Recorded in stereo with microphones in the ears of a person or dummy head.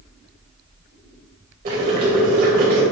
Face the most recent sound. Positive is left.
turn(degrees=-45)  # may be behind; listen again after turning